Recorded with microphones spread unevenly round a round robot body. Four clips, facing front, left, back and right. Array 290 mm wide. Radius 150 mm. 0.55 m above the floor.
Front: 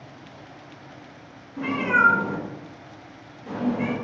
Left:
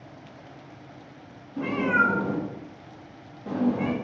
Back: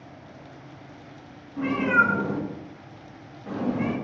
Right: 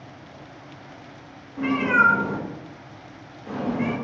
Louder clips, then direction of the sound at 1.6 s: Right 3 dB, even; 100° left.